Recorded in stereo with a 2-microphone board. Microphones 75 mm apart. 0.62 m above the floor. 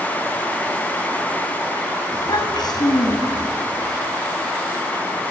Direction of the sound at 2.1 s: 80° left.